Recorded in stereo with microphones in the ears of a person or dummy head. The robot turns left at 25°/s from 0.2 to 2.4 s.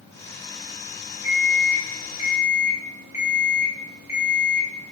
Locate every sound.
1.2 s an alarm clock: 35° right (ahead or behind), 1.6 m; by 4.9 s 10° right (ahead or behind), 1.6 m